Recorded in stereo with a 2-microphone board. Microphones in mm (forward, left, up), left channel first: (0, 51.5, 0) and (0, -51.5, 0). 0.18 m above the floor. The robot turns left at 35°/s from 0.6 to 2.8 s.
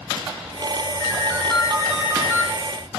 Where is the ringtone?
20° left, 3 m; by 2.5 s 30° right, 3 m.